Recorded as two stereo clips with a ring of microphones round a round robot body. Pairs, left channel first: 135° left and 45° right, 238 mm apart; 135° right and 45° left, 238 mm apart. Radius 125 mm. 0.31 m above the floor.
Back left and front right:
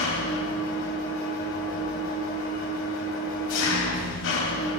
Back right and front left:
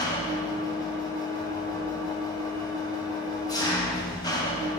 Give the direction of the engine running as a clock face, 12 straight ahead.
7 o'clock.